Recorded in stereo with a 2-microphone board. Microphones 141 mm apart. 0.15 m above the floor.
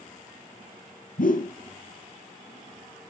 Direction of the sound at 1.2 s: 70° left (ahead or behind).